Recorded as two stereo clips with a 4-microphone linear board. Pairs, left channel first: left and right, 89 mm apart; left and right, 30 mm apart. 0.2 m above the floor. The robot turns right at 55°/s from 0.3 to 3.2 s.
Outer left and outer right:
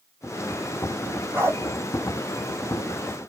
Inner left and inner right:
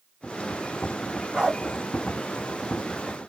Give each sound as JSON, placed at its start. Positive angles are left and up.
{"t": 1.3, "sound": "a dog barking", "side_deg": -25, "distance_m": 2.0}